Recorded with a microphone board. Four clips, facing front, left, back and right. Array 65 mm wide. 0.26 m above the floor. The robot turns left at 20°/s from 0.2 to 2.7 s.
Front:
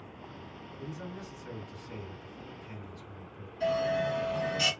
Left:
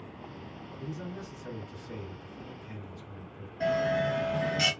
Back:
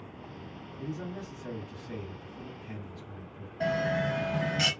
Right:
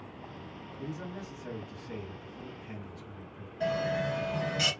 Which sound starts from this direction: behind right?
A man speaking, at 0.8 s.